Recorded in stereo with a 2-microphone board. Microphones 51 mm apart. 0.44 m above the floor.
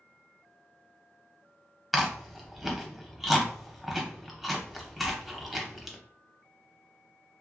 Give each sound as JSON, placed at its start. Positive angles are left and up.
{"t": 1.9, "sound": "chewing", "side_deg": -5, "distance_m": 0.6}